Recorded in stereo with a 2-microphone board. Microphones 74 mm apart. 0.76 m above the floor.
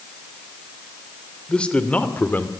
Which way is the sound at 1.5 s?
15° left (ahead or behind).